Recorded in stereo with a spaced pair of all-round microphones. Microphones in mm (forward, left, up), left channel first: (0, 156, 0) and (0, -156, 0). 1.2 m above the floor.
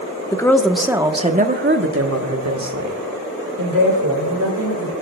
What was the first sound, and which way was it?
A woman speaking, 10° left (ahead or behind).